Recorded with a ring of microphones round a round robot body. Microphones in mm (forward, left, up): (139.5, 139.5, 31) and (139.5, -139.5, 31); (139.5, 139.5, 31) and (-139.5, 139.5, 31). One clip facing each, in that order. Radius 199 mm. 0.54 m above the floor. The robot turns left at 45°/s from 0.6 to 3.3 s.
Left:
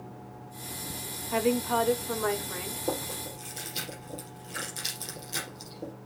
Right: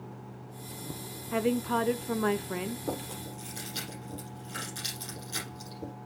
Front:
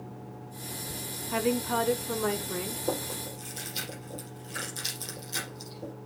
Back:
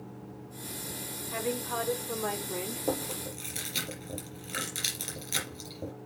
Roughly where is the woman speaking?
Ahead.